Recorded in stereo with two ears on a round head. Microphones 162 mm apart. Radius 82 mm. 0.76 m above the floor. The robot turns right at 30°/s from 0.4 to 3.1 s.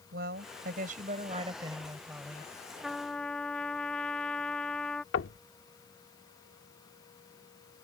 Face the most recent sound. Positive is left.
turn(degrees=85)